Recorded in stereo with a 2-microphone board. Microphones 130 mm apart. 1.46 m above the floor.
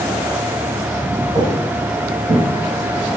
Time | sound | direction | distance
1.4 | footsteps | 45° right (ahead or behind) | 3.5 m